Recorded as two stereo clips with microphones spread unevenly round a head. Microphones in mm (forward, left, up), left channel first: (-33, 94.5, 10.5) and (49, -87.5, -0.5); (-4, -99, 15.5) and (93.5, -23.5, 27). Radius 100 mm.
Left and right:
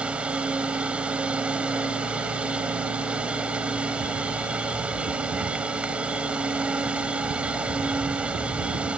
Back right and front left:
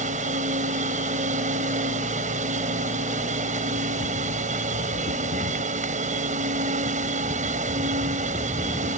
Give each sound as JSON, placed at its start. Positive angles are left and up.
{"t": 0.0, "sound": "a machine running", "azimuth_deg": 20}